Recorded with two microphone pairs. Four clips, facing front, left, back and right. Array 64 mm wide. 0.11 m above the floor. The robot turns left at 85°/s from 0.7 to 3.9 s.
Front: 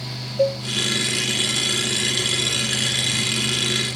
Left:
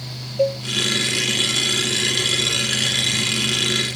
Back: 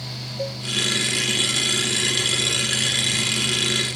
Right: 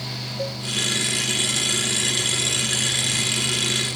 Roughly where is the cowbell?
Ahead left.